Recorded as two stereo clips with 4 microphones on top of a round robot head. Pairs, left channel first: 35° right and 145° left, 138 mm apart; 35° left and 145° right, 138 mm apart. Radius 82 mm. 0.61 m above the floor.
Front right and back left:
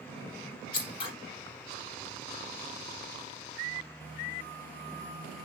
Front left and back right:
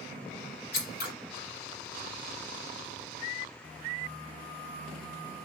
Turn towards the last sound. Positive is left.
turn(degrees=20)